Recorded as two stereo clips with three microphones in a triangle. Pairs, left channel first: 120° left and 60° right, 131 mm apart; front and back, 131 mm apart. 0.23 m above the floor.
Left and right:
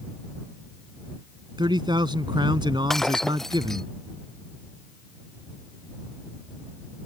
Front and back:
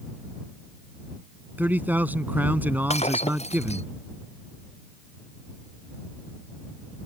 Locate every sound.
1.6 s a man speaking: 105° right
2.9 s breaking glass: 35° left